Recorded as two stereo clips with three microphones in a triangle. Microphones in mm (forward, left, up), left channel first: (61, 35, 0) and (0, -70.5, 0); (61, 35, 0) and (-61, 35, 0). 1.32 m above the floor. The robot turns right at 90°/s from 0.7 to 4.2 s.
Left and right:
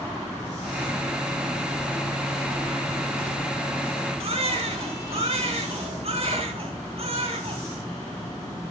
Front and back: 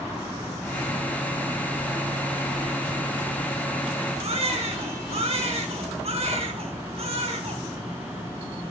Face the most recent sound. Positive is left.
turn(degrees=-150)